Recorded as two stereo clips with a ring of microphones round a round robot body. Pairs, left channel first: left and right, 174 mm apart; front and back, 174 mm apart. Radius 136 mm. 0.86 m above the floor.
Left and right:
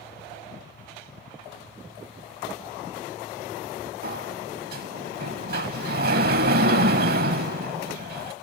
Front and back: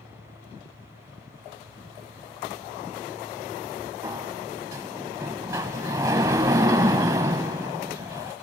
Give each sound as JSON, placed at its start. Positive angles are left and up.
{"t": 4.0, "sound": "a sliding door", "azimuth_deg": -105, "distance_m": 0.9}